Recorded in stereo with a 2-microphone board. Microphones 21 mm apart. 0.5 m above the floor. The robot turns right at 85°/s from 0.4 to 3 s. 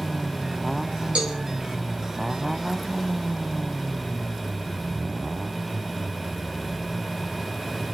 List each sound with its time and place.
1.1 s a cowbell: 65° right (ahead or behind), 4 m; by 1.4 s 50° right (ahead or behind), 4 m